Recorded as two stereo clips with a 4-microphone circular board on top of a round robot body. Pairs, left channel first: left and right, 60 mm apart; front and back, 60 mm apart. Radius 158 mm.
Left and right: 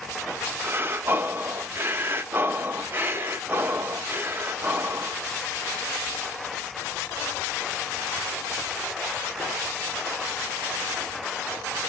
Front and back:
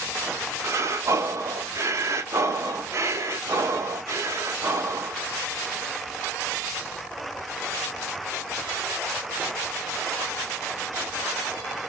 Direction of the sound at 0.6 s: 145° right.